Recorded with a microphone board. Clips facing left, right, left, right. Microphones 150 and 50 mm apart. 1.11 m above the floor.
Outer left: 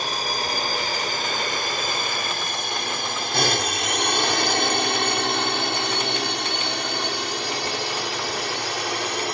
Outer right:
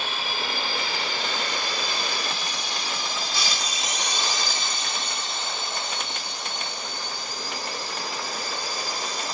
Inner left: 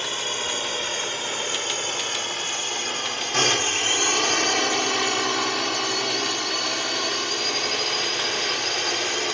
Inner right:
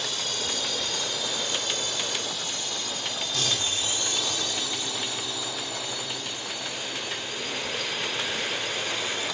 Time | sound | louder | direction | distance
0.0 | a drone | outer left 4 dB, inner left 4 dB | 40° left (ahead or behind) | ?